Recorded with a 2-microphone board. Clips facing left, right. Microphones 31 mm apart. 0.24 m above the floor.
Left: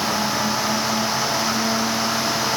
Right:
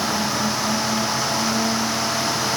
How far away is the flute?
No flute in this recording.